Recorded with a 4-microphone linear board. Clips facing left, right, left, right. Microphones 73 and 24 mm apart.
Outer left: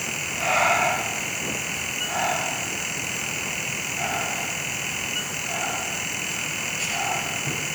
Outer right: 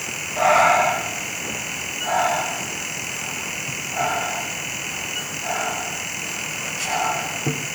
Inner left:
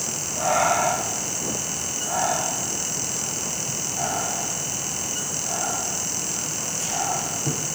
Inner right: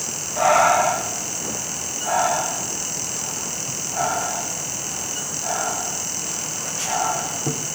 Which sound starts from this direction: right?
Breathing, at 0.4 s.